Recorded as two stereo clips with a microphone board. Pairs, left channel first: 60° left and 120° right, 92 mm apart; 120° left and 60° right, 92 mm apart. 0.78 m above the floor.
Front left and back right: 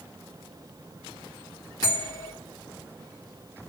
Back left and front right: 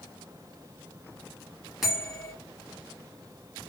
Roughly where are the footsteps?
No footsteps in this recording.